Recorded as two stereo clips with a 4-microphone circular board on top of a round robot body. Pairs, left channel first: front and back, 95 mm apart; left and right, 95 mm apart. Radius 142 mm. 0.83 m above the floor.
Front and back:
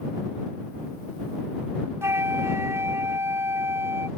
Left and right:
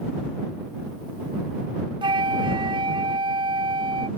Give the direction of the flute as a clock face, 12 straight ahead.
4 o'clock.